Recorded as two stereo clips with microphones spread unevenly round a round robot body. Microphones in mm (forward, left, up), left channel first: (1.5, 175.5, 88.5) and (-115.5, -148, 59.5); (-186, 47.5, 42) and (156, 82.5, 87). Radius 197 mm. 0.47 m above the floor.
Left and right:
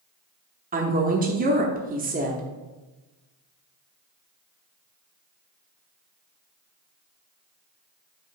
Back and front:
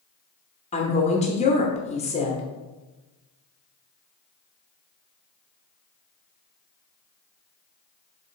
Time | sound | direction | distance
0.7 | a woman speaking | 135° right | 0.9 m